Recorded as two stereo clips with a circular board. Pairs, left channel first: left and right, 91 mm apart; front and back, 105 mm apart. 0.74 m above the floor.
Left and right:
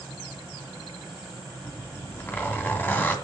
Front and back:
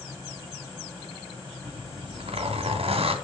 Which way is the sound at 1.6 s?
160° left.